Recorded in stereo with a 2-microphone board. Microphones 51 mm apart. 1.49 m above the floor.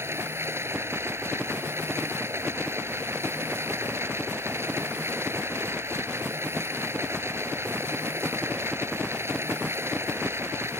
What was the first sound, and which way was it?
Running water, 55° right (ahead or behind).